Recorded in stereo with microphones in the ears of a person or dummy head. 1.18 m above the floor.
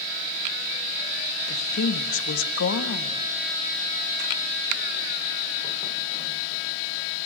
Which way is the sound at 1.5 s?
75° left (ahead or behind).